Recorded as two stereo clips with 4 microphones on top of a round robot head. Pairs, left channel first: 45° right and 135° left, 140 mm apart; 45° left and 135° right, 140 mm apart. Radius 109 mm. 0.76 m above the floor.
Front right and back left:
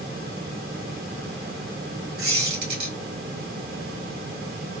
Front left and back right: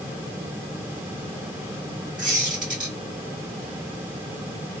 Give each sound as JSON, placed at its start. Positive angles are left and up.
{"t": 2.2, "sound": "a squeak", "azimuth_deg": 140, "distance_m": 1.4}